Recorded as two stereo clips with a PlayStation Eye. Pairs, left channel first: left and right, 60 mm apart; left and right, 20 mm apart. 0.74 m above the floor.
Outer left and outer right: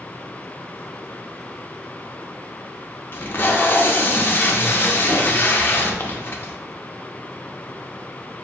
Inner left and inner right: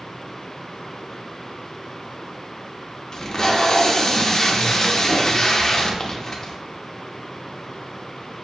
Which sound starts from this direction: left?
Tape being pulled, at 3.1 s.